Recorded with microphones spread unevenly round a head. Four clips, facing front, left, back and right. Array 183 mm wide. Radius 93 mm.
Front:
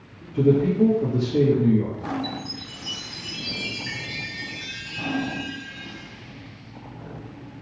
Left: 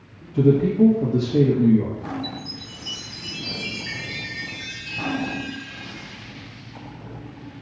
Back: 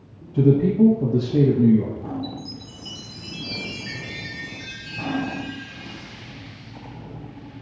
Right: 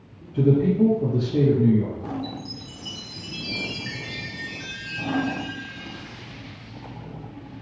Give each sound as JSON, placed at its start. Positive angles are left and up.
{"t": 0.3, "sound": "a man speaking", "azimuth_deg": 160, "distance_m": 1.4}
{"t": 2.2, "sound": "a chime", "azimuth_deg": -140, "distance_m": 1.5}